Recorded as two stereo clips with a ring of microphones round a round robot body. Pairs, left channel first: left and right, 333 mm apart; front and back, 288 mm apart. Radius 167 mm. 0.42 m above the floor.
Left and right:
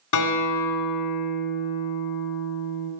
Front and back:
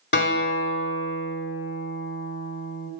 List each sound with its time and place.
0.1 s a guitar: 50° left, 3 m